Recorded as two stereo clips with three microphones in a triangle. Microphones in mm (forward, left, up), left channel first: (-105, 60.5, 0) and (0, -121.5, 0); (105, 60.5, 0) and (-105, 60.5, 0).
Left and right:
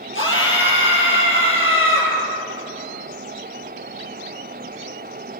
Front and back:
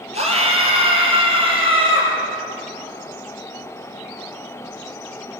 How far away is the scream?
About 4.5 m.